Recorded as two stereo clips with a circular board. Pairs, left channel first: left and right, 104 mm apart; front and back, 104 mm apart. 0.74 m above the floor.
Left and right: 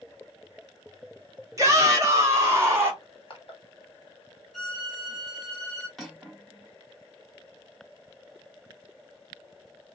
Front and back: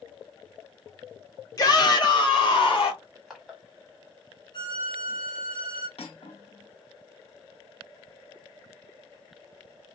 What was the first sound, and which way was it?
A shout, 40° right.